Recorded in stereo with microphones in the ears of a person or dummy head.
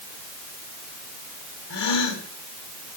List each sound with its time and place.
1.7 s a gasp: 65° left (ahead or behind), 3 m